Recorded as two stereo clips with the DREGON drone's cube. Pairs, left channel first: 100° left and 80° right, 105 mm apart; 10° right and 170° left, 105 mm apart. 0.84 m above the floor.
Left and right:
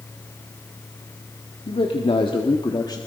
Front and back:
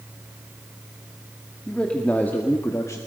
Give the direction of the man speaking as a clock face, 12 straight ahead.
10 o'clock.